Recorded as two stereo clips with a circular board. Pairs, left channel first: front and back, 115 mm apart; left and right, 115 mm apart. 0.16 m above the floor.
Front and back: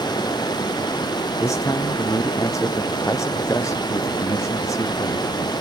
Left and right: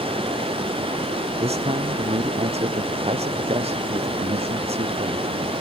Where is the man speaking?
65° right.